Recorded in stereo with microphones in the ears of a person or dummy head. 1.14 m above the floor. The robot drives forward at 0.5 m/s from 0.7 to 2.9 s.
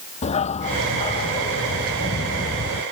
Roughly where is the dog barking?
Left.